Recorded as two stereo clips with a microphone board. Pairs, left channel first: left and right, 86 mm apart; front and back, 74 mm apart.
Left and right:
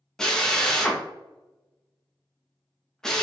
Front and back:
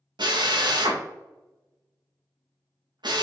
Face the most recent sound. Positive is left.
turn(degrees=175)